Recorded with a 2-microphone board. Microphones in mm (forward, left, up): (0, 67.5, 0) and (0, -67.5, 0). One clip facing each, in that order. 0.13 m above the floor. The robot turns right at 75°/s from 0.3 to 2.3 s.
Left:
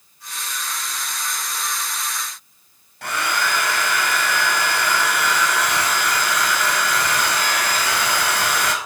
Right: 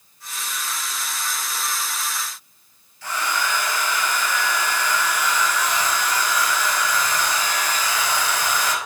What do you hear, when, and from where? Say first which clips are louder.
3.0 s a hair dryer: left 2 dB; 65° left (ahead or behind), 0.8 m